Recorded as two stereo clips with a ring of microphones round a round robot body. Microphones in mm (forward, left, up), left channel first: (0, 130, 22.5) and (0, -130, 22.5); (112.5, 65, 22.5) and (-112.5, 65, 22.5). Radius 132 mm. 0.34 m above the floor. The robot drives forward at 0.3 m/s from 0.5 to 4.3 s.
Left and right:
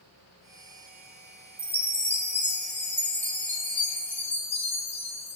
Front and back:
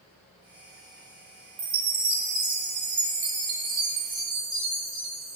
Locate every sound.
1.6 s a chime: 170° left, 2.5 m; by 5.4 s 175° left, 3.5 m